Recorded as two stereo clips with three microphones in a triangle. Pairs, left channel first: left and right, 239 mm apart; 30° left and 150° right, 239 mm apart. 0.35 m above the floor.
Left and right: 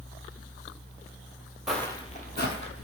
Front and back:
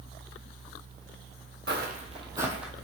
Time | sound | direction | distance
1.7 | footsteps | straight behind | 0.7 m